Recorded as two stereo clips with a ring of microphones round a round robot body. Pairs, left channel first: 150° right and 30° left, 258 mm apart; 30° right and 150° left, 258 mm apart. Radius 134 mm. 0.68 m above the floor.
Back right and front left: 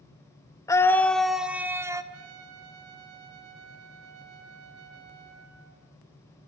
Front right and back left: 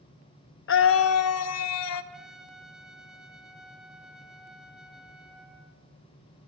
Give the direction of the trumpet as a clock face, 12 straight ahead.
10 o'clock.